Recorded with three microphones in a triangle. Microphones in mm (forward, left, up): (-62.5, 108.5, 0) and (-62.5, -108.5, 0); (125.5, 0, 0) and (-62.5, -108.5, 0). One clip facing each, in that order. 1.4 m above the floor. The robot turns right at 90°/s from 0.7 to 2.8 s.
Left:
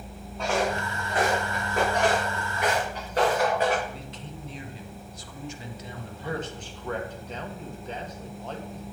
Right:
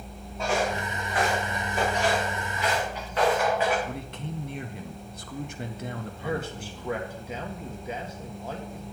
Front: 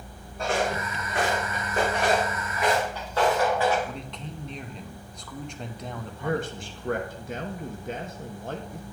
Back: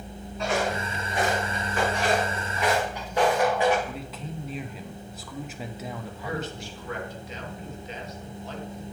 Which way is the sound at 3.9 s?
65° right.